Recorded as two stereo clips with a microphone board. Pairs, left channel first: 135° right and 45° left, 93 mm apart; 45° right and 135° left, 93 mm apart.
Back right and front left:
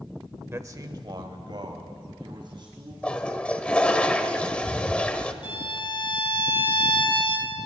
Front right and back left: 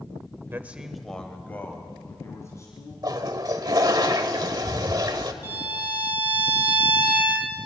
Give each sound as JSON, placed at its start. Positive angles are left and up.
{"t": 0.5, "sound": "a man speaking", "azimuth_deg": 90, "distance_m": 1.0}
{"t": 3.0, "sound": "a toilet flushing", "azimuth_deg": 155, "distance_m": 1.1}
{"t": 5.4, "sound": "a violin", "azimuth_deg": -160, "distance_m": 3.0}